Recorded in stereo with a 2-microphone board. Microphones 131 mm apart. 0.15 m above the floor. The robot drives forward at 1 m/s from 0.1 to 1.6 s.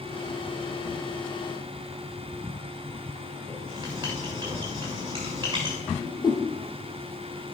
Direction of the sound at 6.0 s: 35° left (ahead or behind).